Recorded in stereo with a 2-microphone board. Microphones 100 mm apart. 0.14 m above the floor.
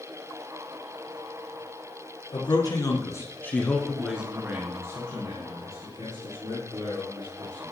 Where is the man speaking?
50° left (ahead or behind), 2.5 m; by 7.7 s 55° right (ahead or behind), 5 m.